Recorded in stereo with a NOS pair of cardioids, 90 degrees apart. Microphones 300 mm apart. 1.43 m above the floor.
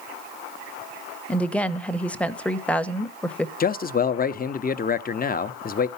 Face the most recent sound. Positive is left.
turn(degrees=30)